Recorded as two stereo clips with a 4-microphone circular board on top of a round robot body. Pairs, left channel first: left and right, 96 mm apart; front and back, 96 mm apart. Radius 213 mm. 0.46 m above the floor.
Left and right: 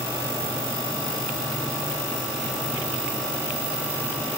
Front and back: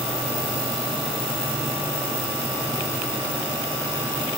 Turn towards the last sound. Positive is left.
No sound to turn to.